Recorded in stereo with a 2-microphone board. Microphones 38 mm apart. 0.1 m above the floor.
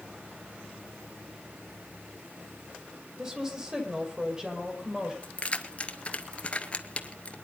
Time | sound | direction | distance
3.2 | a woman speaking | 20° right (ahead or behind) | 4 m
5.2 | keys jangling | 35° left (ahead or behind) | 1.1 m